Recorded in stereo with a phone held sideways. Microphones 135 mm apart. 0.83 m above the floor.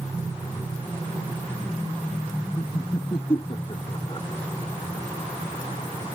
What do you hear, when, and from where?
2.6 s laughter: 30° left (ahead or behind); by 4.3 s 40° left (ahead or behind)